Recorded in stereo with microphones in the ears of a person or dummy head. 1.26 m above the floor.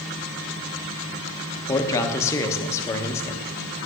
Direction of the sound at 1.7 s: 15° left (ahead or behind).